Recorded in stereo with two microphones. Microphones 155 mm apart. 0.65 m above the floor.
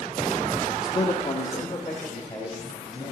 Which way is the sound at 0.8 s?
25° left (ahead or behind).